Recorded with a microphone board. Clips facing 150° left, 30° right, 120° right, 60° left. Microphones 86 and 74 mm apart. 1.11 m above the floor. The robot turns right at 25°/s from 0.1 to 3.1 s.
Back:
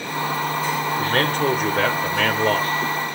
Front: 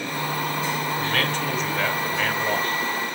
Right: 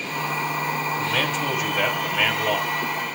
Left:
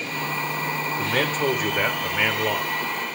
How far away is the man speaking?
About 3.5 m.